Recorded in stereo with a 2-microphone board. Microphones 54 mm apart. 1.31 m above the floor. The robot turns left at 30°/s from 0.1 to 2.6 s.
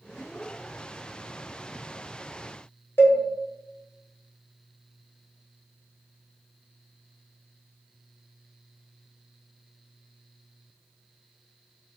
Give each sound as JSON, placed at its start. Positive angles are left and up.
{"t": 3.0, "sound": "a cowbell", "side_deg": 50, "distance_m": 0.6}